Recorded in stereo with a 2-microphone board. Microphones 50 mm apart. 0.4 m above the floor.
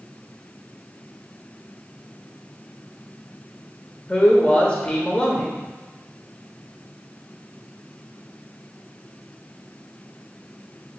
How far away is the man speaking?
About 1.1 m.